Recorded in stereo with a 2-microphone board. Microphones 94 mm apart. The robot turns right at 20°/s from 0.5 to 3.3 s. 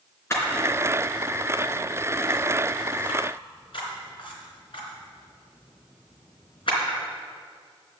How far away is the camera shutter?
About 3.5 m.